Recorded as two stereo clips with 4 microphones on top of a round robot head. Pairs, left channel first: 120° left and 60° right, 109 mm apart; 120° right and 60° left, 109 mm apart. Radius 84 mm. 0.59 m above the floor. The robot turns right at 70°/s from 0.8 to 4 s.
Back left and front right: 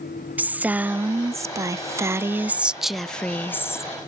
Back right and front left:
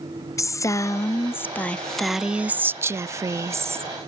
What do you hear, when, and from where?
0.4 s a woman speaking: 115° right; by 3.9 s 100° left